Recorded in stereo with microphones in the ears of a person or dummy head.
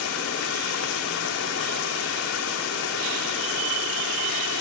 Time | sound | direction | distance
0.0 | running water | 75° left (ahead or behind) | ?